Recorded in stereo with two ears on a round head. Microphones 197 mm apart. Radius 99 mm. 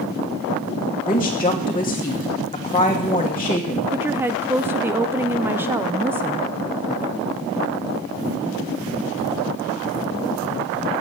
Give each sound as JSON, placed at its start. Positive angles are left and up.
{"t": 1.1, "sound": "a woman speaking", "side_deg": 20, "distance_m": 1.5}
{"t": 3.9, "sound": "a woman speaking", "side_deg": -10, "distance_m": 0.5}